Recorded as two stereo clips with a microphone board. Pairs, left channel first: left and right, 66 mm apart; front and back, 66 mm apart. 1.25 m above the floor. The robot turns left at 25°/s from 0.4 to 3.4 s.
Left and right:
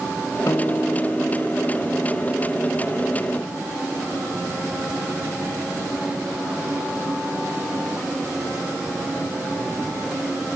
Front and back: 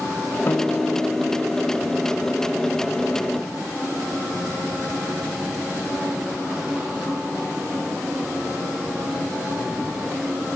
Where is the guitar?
50° left, 1.1 m; by 3.7 s 25° right, 1.1 m.